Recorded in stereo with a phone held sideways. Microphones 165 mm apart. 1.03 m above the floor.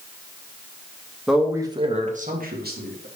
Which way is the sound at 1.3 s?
Centre (ahead or behind).